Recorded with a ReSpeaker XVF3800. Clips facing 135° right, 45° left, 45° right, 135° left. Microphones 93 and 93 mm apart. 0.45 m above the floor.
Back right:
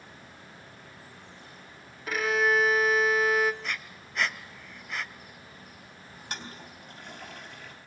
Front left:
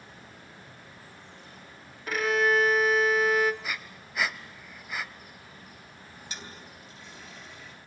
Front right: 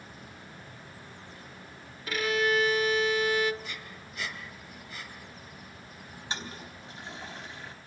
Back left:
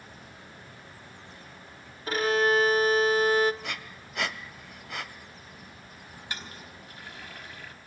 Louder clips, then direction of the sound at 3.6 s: Even, back left 4 dB; 130° left.